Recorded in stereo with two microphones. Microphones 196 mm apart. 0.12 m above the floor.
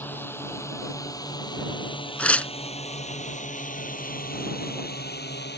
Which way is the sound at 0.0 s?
10° left (ahead or behind).